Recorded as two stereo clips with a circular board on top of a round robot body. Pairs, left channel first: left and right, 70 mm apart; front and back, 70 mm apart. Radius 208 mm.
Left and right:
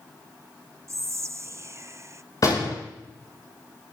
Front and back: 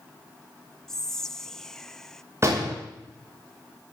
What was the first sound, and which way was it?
Whispering, 80° right.